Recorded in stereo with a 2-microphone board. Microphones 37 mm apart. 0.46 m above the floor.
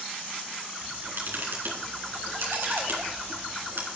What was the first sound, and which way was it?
A camera shutter, 75° right (ahead or behind).